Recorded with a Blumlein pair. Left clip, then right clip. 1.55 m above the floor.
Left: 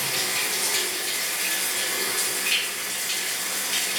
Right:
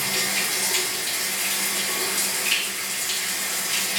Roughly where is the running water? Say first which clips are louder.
Right 2 dB; ahead.